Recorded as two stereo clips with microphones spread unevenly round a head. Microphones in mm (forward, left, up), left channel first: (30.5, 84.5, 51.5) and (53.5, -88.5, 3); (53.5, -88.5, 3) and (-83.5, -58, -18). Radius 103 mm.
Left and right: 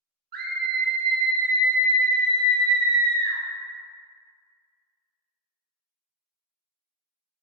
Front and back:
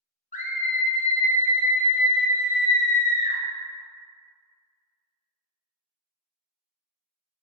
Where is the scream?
50° right, 0.6 m.